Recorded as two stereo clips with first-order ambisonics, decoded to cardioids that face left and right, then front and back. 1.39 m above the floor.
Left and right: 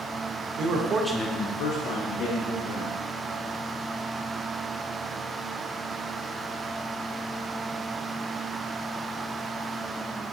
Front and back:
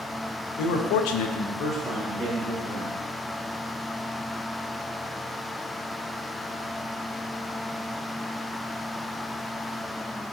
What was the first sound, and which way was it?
A man speaking, 40° right.